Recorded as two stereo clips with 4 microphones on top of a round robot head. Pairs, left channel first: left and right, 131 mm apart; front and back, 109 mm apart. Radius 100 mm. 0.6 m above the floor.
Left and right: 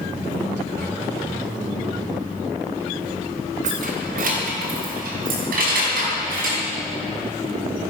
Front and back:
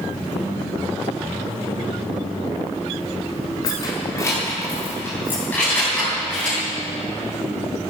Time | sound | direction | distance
3.6 | keys jangling | 60° right | 1.9 m